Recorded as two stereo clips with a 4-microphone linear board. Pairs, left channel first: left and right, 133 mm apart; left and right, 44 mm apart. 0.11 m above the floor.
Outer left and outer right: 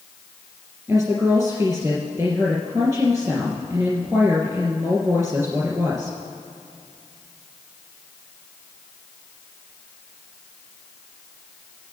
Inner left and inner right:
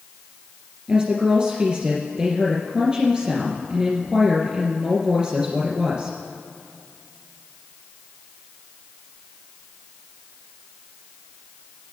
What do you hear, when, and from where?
0.9 s a woman speaking: 25° right (ahead or behind), 2.5 m